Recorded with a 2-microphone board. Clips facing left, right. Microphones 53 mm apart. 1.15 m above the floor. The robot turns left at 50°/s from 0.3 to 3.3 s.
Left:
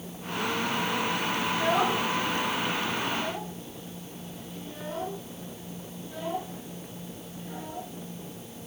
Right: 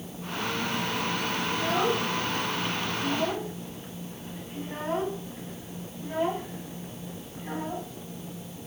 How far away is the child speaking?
About 7 m.